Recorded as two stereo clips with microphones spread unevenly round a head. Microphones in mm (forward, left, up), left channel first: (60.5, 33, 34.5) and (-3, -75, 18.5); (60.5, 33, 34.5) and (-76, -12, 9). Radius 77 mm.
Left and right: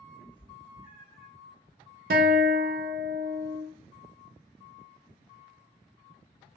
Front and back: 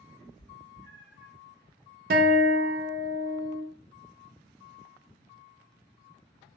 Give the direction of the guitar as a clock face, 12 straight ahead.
4 o'clock.